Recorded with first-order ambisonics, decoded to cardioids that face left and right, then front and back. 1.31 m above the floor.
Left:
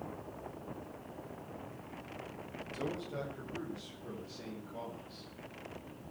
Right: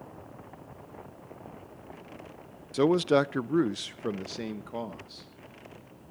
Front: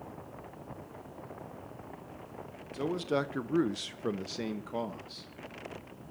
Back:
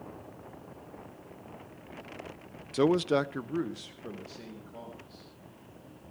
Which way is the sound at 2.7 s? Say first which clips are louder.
Right 17 dB, back 6 dB; 130° right.